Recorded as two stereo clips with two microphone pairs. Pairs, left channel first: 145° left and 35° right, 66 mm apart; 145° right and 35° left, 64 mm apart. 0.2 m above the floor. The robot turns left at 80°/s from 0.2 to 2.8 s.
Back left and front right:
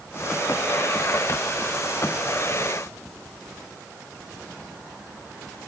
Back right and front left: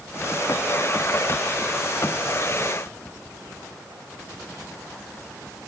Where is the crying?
I don't hear crying.